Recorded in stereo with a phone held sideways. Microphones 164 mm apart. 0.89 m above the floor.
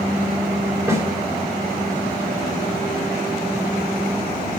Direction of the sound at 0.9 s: 15° right (ahead or behind).